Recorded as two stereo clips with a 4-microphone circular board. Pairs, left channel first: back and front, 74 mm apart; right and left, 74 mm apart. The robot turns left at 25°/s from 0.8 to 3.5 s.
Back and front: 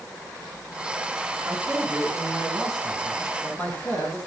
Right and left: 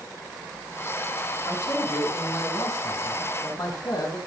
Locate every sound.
1.5 s a man speaking: 65° right, 4.5 m; by 4.2 s 115° right, 4.5 m